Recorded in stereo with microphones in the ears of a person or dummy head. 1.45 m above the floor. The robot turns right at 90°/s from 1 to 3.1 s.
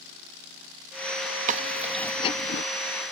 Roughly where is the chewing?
Ahead right.